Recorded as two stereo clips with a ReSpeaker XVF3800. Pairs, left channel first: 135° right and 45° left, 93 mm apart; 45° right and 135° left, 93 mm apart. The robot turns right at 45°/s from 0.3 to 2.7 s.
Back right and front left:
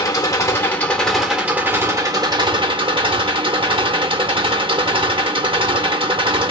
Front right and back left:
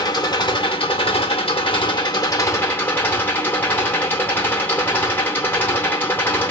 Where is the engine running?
85° right, 1.1 m; by 6.5 s 25° left, 1.1 m.